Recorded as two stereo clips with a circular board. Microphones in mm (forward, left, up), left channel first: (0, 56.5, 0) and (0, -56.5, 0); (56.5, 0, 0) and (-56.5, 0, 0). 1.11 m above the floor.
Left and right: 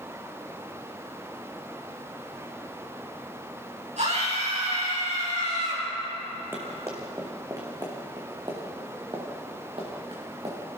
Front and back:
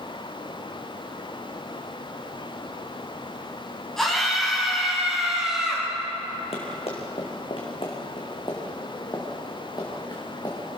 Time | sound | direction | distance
4.0 | a scream | 85° right | 9 m
6.5 | running footsteps | 20° right | 3.5 m